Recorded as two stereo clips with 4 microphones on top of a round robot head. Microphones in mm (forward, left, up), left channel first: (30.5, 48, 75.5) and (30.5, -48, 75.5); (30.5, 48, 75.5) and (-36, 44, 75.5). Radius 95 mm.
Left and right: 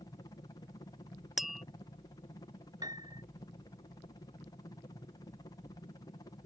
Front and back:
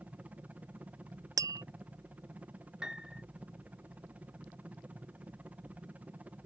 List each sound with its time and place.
0.0 s a helicopter: 125° left
1.4 s tapping: 175° right
2.8 s a piano: 100° right